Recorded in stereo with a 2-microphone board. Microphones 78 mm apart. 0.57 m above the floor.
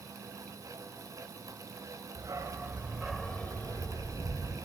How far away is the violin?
No violin in this recording.